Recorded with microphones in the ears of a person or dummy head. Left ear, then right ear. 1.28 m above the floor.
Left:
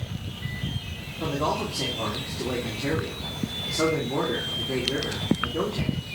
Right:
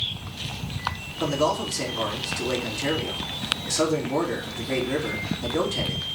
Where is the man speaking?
70° right (ahead or behind), 3 m.